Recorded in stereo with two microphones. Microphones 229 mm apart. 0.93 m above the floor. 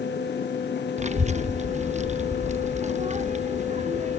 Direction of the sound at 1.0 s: 30° right (ahead or behind).